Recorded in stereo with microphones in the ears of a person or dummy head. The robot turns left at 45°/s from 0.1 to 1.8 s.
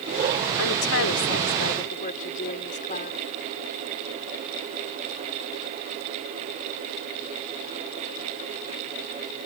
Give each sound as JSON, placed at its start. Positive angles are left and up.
{"t": 0.6, "sound": "a woman speaking", "azimuth_deg": 100}